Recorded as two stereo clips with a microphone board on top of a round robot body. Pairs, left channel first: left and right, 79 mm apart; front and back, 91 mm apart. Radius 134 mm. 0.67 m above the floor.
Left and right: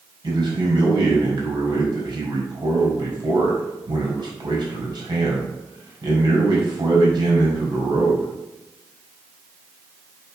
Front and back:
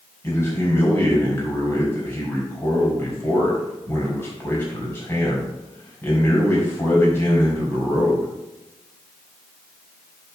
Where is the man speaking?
65° right, 4.5 m.